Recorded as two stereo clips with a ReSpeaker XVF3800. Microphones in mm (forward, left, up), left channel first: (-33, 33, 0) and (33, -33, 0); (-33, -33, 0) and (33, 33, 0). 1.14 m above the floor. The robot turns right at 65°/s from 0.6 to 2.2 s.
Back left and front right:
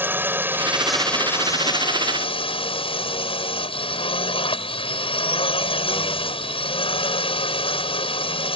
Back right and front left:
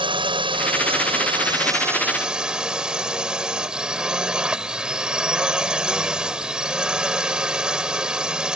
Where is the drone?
25° left; by 8.6 s 125° left.